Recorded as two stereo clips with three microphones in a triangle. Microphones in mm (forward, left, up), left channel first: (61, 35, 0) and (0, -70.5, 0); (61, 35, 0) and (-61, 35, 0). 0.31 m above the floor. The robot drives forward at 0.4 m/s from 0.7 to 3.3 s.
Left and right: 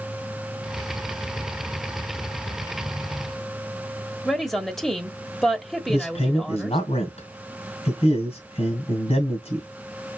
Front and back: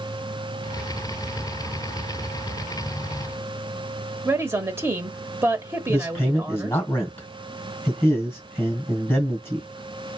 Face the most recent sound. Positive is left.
turn(degrees=70)